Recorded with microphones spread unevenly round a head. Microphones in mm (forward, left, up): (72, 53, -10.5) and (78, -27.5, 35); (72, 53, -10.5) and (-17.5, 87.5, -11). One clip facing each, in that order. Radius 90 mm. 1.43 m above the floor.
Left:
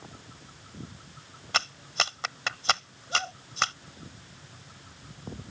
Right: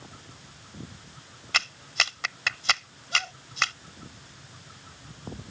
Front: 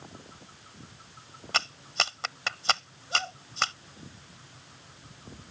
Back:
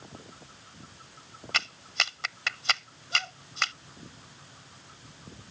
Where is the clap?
35° left.